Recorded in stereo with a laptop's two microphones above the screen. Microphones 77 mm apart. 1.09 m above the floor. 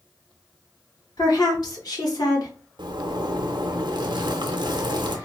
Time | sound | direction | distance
1.2 | a woman speaking | 55° left (ahead or behind) | 2 m
2.8 | a zipper | 85° right | 0.7 m